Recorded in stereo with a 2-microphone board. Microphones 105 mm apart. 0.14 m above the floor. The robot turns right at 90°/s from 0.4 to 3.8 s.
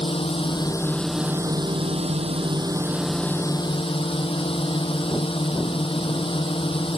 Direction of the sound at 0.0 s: 115° left.